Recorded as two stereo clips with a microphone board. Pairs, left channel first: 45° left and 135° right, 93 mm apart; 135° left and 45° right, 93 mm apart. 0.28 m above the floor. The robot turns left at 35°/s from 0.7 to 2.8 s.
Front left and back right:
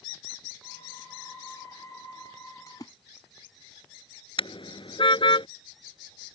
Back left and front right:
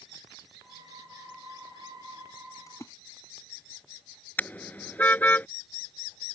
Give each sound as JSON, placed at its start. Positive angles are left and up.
{"t": 2.7, "sound": "a splash", "azimuth_deg": 90}
{"t": 4.4, "sound": "a car horn", "azimuth_deg": 65}